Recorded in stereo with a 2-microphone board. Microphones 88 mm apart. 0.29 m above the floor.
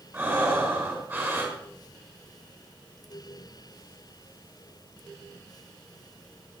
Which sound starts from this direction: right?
Breathing, at 0.1 s.